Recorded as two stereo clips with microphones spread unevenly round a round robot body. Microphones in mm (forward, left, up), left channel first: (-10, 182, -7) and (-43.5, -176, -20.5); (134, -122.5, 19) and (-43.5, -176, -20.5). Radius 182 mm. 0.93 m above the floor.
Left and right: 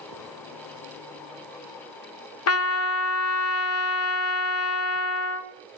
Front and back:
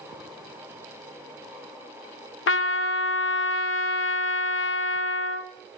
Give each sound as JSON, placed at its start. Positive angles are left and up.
{"t": 2.5, "sound": "a trumpet", "azimuth_deg": 35, "distance_m": 0.7}